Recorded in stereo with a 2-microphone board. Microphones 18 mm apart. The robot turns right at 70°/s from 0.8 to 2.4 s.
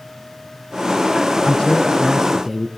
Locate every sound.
1.4 s a man speaking: 125° left, 2 m; by 2.7 s 170° right, 2 m